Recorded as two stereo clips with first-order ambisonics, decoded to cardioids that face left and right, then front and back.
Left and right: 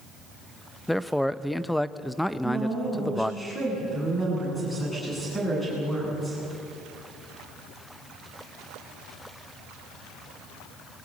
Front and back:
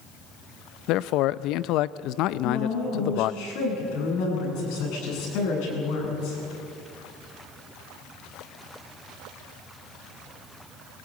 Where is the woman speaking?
5° left, 9 m.